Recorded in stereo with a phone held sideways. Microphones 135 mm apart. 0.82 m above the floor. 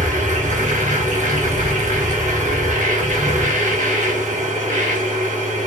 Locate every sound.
0.0 s a machine running: 65° right (ahead or behind), 0.8 m